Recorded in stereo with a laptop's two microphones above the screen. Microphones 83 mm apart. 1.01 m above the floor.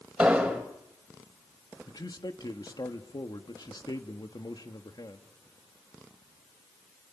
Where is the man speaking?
55° left (ahead or behind), 1.6 m.